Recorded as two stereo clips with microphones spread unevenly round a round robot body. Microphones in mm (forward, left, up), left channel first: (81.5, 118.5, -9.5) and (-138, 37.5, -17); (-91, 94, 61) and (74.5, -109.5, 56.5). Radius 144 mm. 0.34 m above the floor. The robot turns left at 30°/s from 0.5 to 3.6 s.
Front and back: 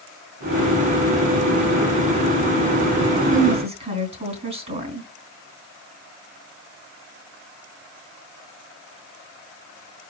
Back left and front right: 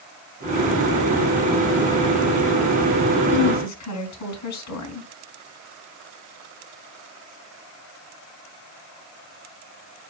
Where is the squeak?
I don't hear a squeak.